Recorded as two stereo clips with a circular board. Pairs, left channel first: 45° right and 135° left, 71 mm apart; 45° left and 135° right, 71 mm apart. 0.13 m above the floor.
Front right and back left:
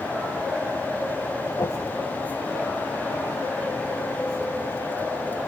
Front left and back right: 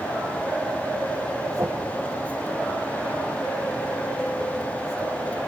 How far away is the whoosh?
About 3.5 m.